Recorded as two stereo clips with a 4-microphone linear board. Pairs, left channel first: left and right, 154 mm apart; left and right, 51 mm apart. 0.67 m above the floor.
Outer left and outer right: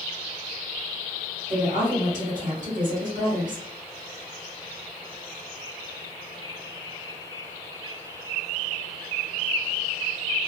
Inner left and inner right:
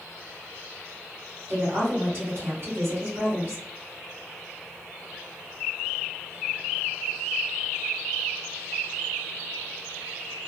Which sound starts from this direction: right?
A woman speaking, at 1.5 s.